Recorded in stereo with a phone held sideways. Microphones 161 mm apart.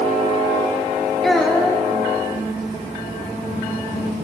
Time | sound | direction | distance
1.2 | a child speaking | centre (ahead or behind) | 0.6 m